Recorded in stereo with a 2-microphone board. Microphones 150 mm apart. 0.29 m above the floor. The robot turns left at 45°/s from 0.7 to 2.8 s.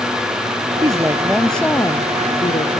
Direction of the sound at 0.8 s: 150° right.